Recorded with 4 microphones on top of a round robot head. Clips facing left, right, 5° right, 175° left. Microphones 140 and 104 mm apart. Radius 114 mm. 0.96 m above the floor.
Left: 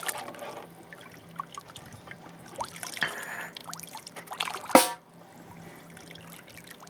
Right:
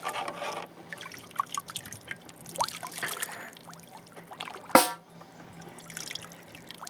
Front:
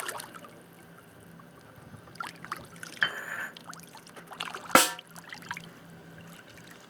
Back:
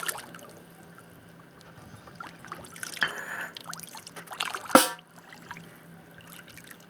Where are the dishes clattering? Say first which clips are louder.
Left 6 dB, even; 105° left, 1.0 m.